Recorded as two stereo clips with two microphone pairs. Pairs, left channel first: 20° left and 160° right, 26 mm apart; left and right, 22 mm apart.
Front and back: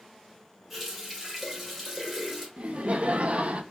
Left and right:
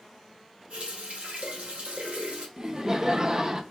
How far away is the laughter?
About 0.7 m.